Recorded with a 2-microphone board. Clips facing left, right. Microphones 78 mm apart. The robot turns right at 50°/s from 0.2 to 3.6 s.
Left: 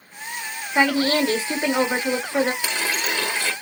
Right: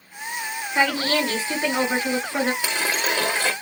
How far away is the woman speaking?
About 1.0 m.